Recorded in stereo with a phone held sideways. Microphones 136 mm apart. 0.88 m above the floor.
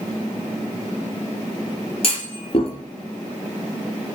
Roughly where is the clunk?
Left.